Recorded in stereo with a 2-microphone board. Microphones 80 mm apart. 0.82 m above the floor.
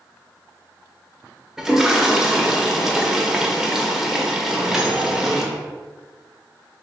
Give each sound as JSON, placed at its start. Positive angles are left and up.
{"t": 1.6, "sound": "a toilet flushing", "side_deg": -5, "distance_m": 0.6}
{"t": 4.5, "sound": "a microwave", "side_deg": -5, "distance_m": 0.6}